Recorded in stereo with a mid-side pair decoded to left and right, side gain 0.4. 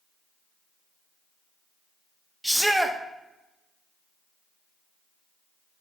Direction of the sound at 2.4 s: 10° right.